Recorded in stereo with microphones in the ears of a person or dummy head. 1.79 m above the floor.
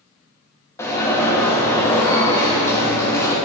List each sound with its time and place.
0.8 s an alarm: 20° left (ahead or behind), 1.2 m